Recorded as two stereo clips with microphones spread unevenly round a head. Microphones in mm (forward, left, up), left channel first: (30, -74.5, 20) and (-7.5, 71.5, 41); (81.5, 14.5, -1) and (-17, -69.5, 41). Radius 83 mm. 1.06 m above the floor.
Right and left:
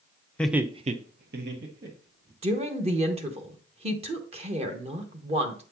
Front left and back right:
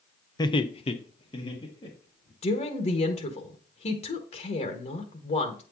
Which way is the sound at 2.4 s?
55° left.